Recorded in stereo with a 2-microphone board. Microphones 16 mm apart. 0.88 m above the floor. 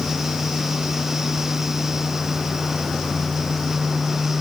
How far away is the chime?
I don't hear a chime.